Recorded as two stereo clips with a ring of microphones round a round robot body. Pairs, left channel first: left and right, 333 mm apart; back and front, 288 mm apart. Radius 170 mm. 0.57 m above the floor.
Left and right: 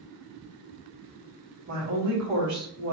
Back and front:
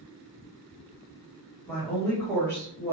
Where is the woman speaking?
95° right, 1.6 m.